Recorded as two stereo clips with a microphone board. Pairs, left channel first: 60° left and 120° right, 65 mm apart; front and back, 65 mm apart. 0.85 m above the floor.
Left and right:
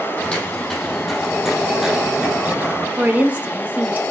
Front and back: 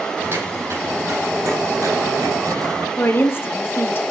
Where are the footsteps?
135° left, 2 m; by 2.9 s straight behind, 2 m.